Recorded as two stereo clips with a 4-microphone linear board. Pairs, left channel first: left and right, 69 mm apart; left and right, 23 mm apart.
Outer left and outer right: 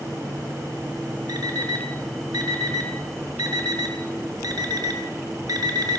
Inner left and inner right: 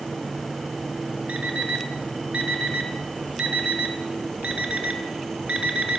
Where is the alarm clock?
75° right (ahead or behind), 1.2 m.